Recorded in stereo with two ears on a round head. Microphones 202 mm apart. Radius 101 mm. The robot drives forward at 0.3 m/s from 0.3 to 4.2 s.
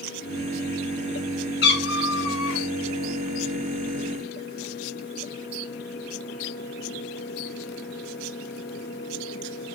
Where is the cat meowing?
45° left (ahead or behind), 0.7 m; by 2.7 s 65° left (ahead or behind), 0.6 m.